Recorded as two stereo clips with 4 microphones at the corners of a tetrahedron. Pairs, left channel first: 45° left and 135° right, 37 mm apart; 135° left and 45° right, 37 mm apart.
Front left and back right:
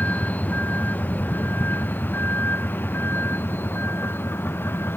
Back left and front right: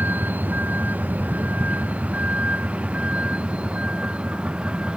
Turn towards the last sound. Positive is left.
turn(degrees=20)